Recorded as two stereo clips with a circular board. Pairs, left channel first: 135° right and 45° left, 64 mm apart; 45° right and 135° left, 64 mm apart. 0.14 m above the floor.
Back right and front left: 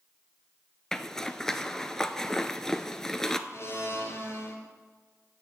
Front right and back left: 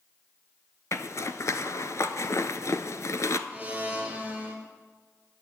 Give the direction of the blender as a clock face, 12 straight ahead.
5 o'clock.